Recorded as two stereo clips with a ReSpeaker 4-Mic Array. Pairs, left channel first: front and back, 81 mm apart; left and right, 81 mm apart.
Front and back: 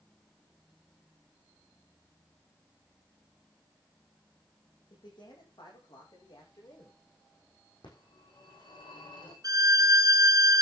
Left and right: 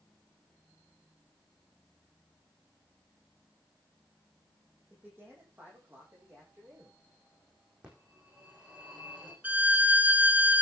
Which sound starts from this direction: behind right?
A violin, at 9.4 s.